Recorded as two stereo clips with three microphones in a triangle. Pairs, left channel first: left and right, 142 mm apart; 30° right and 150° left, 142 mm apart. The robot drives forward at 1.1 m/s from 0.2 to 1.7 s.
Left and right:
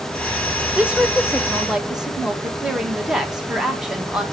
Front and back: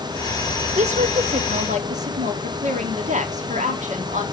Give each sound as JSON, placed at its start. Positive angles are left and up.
{"t": 0.8, "sound": "a woman speaking", "azimuth_deg": -170, "distance_m": 0.6}